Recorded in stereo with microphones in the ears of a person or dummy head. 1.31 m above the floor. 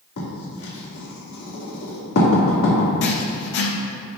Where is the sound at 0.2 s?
75° left (ahead or behind), 1.9 m.